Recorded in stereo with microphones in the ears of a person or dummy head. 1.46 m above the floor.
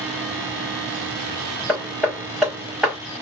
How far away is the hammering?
About 1.1 m.